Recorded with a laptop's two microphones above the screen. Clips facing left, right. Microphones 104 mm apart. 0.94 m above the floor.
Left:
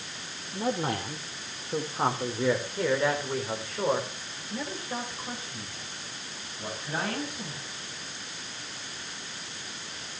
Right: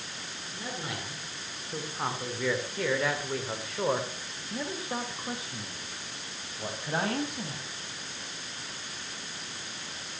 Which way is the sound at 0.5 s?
50° left (ahead or behind).